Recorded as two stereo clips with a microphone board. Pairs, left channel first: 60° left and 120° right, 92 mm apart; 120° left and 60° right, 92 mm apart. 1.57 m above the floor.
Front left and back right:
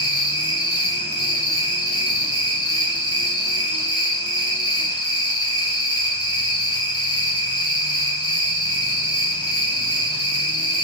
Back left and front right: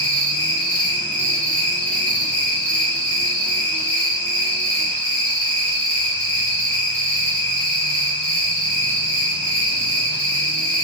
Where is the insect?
50° left, 0.9 m.